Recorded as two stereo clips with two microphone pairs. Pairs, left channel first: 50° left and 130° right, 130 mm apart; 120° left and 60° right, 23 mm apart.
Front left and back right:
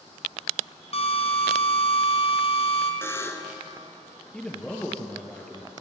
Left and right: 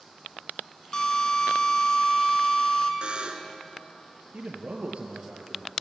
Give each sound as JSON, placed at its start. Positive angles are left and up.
{"t": 0.9, "sound": "a drill", "azimuth_deg": 75, "distance_m": 2.5}
{"t": 3.0, "sound": "a buzzer", "azimuth_deg": -20, "distance_m": 2.5}
{"t": 4.3, "sound": "a man speaking", "azimuth_deg": -35, "distance_m": 4.5}